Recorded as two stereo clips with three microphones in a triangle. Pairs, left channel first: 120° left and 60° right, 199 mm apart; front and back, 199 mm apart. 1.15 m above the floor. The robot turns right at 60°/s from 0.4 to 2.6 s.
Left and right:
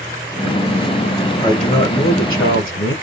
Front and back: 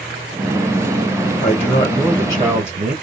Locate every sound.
1.4 s a man speaking: 55° left, 1.0 m; by 2.9 s 125° left, 1.0 m